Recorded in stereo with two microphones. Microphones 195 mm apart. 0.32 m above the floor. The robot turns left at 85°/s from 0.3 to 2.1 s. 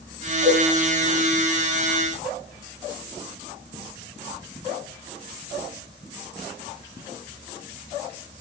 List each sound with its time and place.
0.5 s a cowbell: 20° right (ahead or behind), 10 m; by 0.7 s 40° right (ahead or behind), 10 m